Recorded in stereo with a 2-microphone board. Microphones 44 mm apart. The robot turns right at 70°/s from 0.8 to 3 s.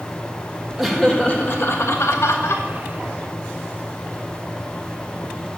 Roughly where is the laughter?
Ahead.